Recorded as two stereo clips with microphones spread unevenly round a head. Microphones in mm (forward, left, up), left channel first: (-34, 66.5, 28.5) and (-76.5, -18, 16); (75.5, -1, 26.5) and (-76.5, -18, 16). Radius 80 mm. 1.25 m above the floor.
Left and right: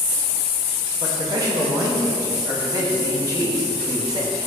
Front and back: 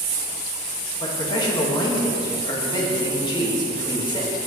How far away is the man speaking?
About 2 m.